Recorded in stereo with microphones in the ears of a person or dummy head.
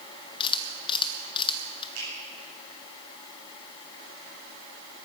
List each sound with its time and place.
0.4 s a camera shutter: 30° left (ahead or behind), 1.2 m
1.9 s a finger snap: 70° right (ahead or behind), 8 m